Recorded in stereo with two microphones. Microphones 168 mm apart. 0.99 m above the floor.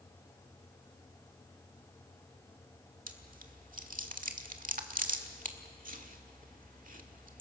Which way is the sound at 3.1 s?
55° right (ahead or behind).